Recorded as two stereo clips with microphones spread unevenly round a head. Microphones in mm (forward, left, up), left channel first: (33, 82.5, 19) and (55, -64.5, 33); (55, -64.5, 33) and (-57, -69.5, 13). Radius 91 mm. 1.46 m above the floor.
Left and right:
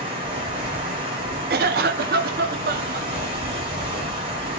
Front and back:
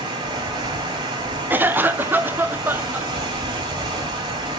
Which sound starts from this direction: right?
A cough, at 1.5 s.